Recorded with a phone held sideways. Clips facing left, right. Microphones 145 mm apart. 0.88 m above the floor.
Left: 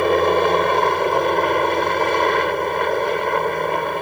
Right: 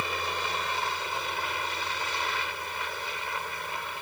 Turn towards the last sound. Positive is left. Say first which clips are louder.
# left 18 dB
turn(degrees=65)  # may be behind; listen again after turning